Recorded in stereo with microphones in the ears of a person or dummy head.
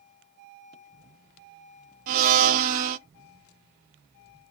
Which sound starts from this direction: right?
A blender, at 2.1 s.